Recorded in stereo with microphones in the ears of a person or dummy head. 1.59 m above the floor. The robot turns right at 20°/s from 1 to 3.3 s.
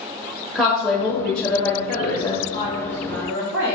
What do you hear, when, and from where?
0.6 s a woman speaking: 5° left (ahead or behind), 1.0 m; by 2.4 s 35° left (ahead or behind), 1.0 m
2.5 s a woman speaking: 65° right (ahead or behind), 1.8 m; by 3.8 s 80° right, 1.8 m